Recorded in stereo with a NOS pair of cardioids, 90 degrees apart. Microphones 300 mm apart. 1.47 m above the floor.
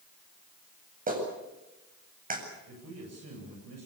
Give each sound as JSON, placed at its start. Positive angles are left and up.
{"t": 1.1, "sound": "a clap", "azimuth_deg": -30, "distance_m": 8.0}
{"t": 2.7, "sound": "a man speaking", "azimuth_deg": -55, "distance_m": 8.5}